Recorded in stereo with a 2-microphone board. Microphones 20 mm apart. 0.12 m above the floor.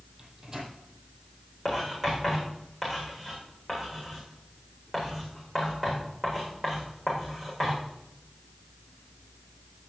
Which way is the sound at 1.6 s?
10° right (ahead or behind).